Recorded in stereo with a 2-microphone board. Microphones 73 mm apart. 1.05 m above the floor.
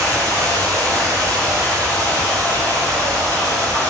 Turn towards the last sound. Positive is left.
turn(degrees=-45)  # may be behind; listen again after turning